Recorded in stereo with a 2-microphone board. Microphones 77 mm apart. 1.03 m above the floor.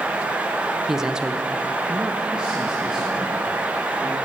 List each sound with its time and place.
0.9 s a man speaking: 5° right (ahead or behind), 0.7 m; by 4.2 s 10° right (ahead or behind), 3 m